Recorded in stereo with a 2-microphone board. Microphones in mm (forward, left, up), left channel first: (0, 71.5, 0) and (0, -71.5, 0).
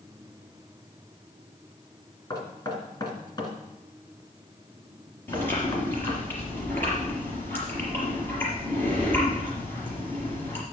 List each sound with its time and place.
2.3 s knocking: 30° left (ahead or behind), 2.5 m
5.3 s chewing: 15° left (ahead or behind), 5 m